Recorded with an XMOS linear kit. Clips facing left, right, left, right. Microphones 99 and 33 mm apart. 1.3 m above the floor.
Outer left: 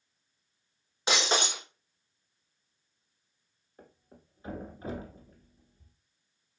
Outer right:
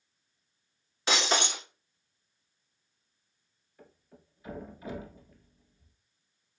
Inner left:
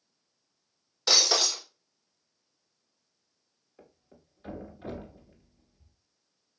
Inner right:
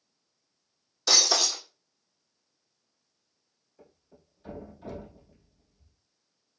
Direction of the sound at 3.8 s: 35° left (ahead or behind).